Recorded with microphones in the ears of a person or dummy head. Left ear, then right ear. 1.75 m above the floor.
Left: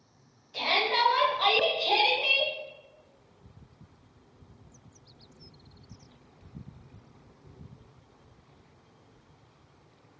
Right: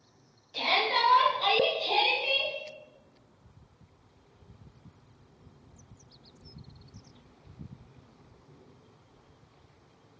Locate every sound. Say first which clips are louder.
0.5 s a shout: left 1 dB; 5° right (ahead or behind), 1.4 m; by 2.5 s 85° left, 1.5 m